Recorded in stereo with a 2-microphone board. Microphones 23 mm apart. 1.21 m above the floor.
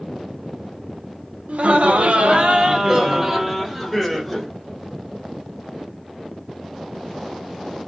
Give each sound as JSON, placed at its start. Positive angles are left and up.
{"t": 1.5, "sound": "laughter", "side_deg": -75, "distance_m": 0.8}